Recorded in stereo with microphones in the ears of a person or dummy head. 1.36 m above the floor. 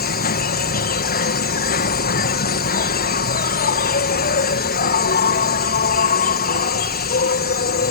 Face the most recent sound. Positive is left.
turn(degrees=45)  # may be behind; listen again after turning